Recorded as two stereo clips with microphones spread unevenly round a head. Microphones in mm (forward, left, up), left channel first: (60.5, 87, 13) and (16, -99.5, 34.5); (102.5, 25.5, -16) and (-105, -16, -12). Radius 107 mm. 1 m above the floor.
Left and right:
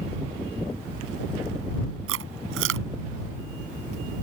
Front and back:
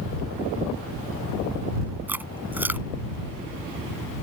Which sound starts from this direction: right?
Chewing, at 2.1 s.